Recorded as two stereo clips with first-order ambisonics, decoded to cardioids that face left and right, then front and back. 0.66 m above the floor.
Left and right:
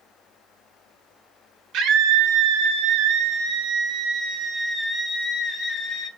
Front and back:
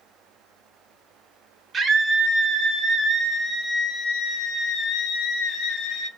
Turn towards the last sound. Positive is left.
turn(degrees=20)